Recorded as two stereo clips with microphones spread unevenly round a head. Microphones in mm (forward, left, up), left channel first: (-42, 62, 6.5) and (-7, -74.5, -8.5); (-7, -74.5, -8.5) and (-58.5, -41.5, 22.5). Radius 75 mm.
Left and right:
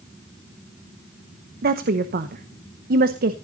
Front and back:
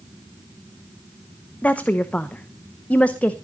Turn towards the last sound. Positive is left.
turn(degrees=-100)